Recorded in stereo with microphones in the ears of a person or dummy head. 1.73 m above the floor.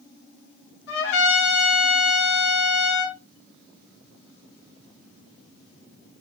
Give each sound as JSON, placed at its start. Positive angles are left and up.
{"t": 0.9, "sound": "a trumpet", "side_deg": 80, "distance_m": 3.0}